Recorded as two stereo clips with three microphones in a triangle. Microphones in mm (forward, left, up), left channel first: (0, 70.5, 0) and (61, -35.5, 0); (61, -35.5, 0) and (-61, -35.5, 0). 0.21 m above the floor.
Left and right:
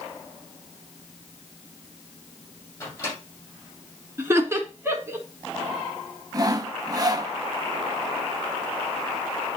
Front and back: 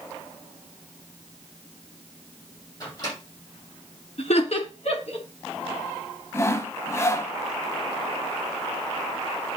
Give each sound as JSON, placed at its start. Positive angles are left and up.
{"t": 2.8, "sound": "a microwave", "azimuth_deg": 55, "distance_m": 6.5}
{"t": 4.2, "sound": "laughter", "azimuth_deg": 5, "distance_m": 3.5}
{"t": 6.3, "sound": "sawing", "azimuth_deg": -45, "distance_m": 0.7}